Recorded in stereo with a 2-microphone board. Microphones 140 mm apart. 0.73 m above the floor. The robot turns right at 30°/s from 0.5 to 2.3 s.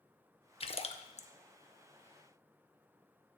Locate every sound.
0.6 s a splash: 40° left (ahead or behind), 0.6 m; by 1.3 s 55° left (ahead or behind), 0.6 m